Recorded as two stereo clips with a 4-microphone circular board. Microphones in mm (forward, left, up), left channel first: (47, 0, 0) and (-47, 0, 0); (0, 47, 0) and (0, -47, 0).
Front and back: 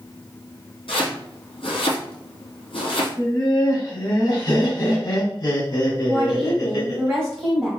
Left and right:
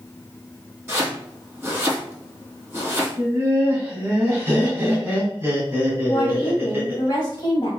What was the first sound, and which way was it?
Chopping, 25° right.